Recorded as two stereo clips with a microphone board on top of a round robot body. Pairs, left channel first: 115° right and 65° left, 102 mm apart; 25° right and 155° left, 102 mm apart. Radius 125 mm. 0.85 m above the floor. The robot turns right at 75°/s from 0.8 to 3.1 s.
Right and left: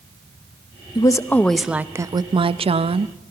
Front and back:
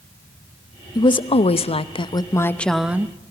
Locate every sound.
0.9 s a woman speaking: 70° right, 0.9 m; by 3.1 s 90° left, 0.9 m